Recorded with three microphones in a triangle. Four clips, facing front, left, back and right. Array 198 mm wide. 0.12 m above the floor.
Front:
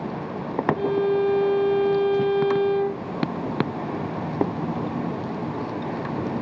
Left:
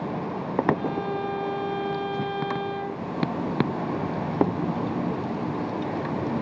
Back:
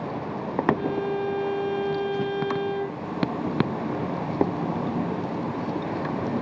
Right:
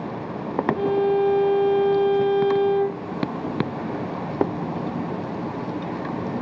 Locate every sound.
0.8 s a violin: 75° right, 1.8 m